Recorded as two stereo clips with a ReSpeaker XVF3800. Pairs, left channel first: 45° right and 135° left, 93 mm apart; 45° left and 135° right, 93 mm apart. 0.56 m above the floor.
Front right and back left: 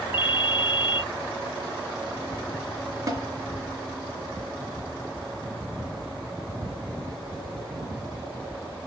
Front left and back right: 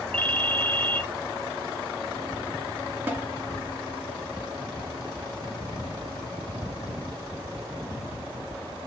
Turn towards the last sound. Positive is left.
turn(degrees=165)